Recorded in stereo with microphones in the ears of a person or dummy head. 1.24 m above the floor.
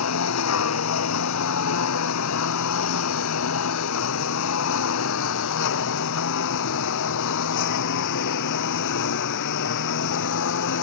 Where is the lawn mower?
80° left; by 10.8 s 65° left (ahead or behind).